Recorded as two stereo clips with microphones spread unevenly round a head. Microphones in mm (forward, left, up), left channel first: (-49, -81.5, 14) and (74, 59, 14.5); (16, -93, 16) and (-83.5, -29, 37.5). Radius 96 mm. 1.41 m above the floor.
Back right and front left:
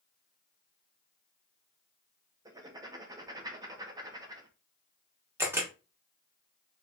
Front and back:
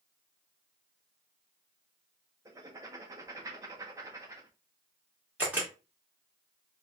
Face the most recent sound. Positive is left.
turn(degrees=110)